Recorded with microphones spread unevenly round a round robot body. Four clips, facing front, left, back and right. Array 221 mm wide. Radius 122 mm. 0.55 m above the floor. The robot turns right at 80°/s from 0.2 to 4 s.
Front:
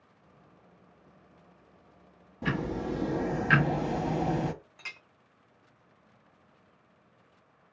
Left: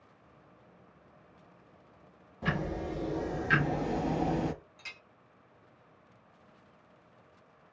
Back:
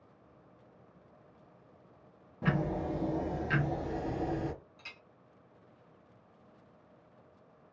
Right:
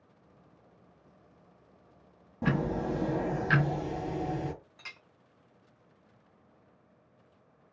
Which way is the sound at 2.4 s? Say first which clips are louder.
Right 4 dB, front 1 dB; 100° right.